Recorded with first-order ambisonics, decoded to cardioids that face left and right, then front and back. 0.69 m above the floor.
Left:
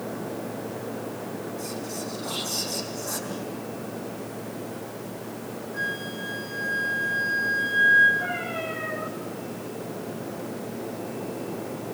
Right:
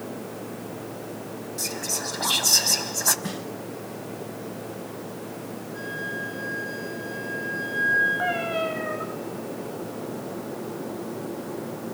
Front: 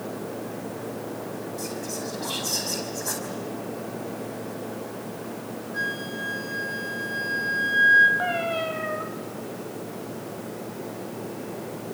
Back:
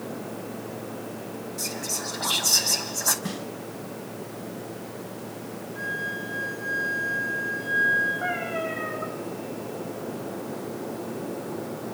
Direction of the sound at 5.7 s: 15° left.